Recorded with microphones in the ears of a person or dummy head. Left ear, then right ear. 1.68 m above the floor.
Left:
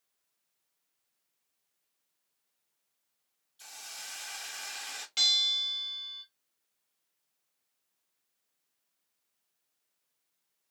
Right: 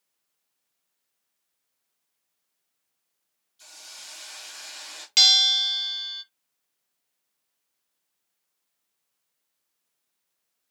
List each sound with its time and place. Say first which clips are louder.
3.6 s a hiss: right 1 dB; 20° left (ahead or behind), 1.0 m
5.2 s a bell: right 9 dB; 35° right (ahead or behind), 0.7 m